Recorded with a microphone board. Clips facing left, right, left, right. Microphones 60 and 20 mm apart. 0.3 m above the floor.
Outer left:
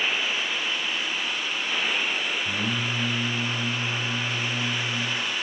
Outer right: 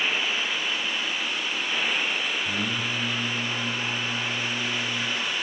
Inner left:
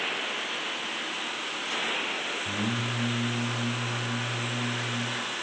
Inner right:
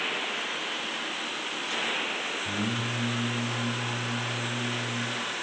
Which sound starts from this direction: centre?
Singing, at 2.5 s.